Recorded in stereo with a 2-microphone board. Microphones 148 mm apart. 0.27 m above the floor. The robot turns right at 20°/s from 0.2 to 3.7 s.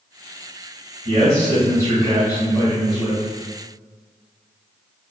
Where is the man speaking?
45° right, 1.8 m; by 3.2 s straight ahead, 1.8 m.